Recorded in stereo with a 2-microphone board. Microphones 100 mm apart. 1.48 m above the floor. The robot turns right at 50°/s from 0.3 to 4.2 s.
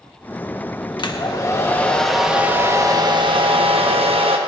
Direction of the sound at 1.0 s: 125° left.